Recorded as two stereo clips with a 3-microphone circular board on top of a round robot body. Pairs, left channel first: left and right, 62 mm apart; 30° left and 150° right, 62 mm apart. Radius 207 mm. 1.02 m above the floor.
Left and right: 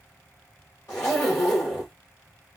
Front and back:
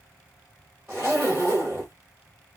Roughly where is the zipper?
Behind left.